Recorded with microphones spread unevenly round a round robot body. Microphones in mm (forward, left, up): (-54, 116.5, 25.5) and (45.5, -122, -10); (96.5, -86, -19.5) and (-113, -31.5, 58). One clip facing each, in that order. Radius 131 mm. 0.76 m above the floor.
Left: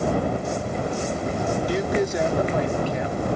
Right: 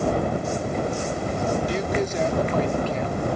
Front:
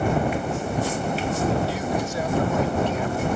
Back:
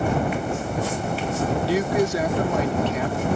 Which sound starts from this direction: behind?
A man speaking, at 1.7 s.